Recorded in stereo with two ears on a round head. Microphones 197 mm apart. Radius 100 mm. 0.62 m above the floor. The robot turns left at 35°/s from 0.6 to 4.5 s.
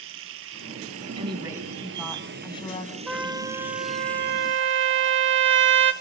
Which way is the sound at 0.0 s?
65° right.